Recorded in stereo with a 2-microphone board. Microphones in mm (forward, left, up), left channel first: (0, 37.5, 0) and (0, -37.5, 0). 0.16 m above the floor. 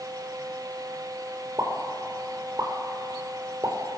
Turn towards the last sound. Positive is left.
turn(degrees=-45)  # may be behind; listen again after turning